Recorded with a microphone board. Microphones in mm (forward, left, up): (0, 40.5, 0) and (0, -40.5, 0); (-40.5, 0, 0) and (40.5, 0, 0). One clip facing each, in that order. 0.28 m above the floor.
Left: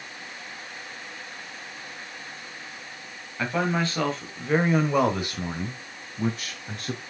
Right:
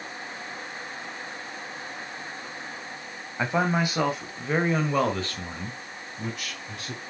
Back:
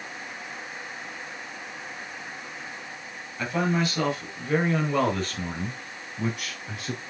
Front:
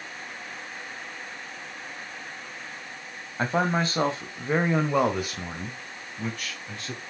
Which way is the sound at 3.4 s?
30° right.